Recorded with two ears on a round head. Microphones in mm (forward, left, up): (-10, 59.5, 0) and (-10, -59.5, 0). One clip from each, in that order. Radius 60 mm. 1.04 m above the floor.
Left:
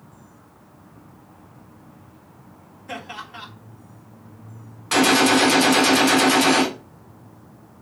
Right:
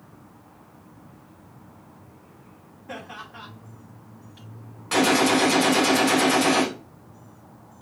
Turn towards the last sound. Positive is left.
turn(degrees=25)  # may be behind; listen again after turning